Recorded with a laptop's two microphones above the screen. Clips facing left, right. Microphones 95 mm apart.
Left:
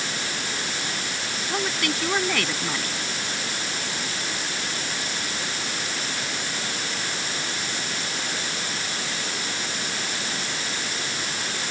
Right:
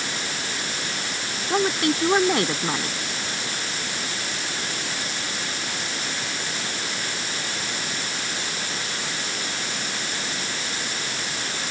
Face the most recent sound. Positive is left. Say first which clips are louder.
# right 6 dB
turn(degrees=-25)  # may be behind; listen again after turning